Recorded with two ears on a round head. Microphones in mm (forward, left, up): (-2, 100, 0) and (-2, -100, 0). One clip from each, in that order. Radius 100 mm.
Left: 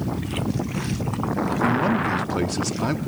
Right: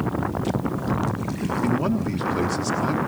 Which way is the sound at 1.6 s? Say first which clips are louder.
Left 4 dB; 10° left (ahead or behind).